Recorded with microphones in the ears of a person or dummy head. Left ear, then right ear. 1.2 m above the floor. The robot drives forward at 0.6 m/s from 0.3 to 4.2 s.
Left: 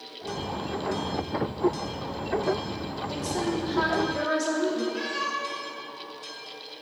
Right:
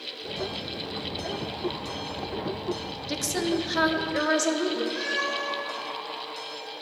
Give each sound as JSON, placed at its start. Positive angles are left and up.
{"t": 3.1, "sound": "a woman speaking", "side_deg": -55, "distance_m": 0.8}
{"t": 4.9, "sound": "a cat meowing", "side_deg": -75, "distance_m": 3.0}